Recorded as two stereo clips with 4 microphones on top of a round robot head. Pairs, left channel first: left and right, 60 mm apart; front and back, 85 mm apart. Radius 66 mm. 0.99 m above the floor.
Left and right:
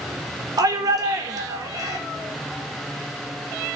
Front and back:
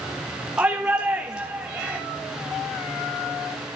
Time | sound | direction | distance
0.6 | a shout | 100° right | 3 m